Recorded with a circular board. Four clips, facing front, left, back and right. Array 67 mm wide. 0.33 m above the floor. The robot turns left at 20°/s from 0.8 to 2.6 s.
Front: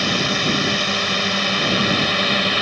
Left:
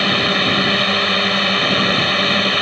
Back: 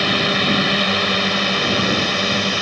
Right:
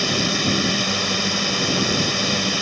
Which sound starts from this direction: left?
A drone, at 0.0 s.